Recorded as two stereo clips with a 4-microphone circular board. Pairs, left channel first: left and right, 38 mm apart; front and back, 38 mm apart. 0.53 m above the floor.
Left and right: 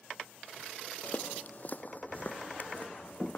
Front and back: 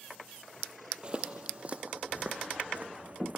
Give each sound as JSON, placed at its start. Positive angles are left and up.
{"t": 1.0, "sound": "footsteps", "azimuth_deg": 125}